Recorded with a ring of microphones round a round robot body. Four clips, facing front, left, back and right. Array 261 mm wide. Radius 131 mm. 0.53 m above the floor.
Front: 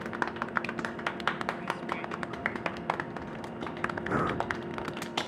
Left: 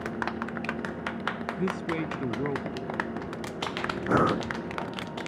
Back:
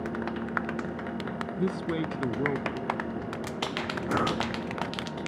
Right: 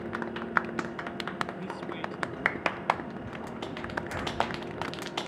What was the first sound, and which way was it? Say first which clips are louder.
A man speaking: left 6 dB, back 6 dB; 145° left.